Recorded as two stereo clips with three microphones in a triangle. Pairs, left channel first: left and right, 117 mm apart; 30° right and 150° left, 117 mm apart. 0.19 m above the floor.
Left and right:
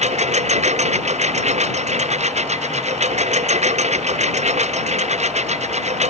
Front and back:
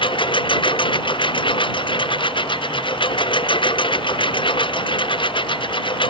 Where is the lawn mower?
75° right.